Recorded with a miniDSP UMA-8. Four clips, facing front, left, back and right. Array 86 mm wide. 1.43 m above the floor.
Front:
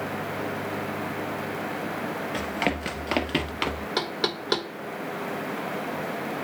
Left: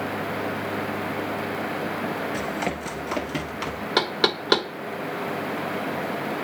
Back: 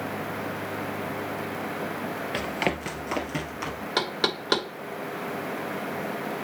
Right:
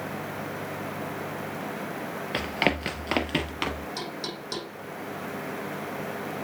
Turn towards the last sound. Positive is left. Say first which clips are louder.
# left 11 dB, back 4 dB
turn(degrees=100)